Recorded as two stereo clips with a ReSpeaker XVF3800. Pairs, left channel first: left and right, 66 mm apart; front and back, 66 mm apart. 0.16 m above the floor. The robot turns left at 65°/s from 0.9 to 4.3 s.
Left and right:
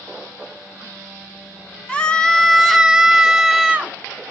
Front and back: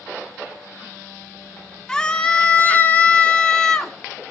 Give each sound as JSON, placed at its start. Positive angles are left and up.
{"t": 1.9, "sound": "a scream", "azimuth_deg": 60, "distance_m": 1.0}